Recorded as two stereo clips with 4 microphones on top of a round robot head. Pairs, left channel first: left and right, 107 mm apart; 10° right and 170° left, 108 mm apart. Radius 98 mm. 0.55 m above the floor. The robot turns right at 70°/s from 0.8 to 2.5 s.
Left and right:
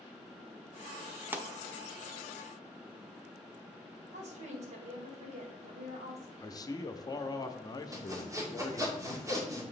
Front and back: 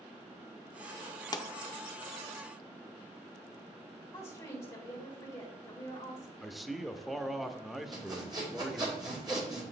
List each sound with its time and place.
1.3 s a pop: 30° right, 0.7 m; by 1.5 s 20° right, 0.7 m
4.1 s a woman speaking: 80° right, 2 m
6.4 s a man speaking: 80° left, 0.8 m
7.9 s sawing: 145° right, 2 m